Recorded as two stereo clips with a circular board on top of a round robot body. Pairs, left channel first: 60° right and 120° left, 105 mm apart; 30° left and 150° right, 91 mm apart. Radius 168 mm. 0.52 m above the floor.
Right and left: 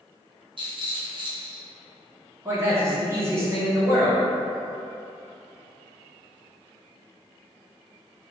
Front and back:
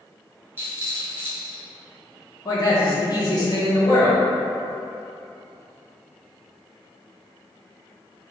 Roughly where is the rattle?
Behind left.